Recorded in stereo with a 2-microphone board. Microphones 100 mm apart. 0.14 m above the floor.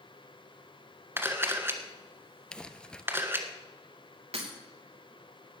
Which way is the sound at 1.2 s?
25° right (ahead or behind).